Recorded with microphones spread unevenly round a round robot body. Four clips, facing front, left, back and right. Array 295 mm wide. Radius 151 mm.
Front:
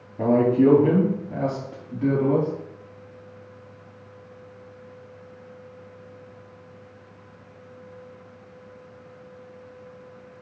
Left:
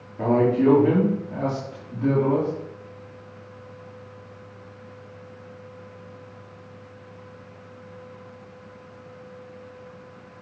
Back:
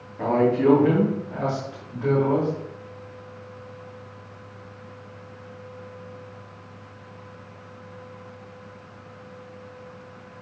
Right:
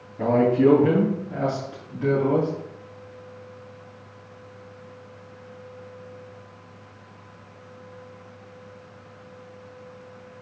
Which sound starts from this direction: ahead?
A man speaking, at 0.2 s.